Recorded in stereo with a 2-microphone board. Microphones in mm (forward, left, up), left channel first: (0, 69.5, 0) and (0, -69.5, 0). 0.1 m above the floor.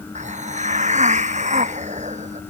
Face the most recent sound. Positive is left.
turn(degrees=-55)  # may be behind; listen again after turning